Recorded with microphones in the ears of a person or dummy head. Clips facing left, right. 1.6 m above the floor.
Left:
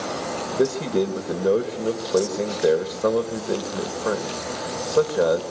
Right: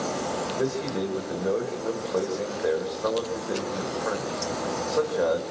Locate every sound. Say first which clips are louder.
0.6 s a man speaking: left 8 dB; 50° left (ahead or behind), 2 m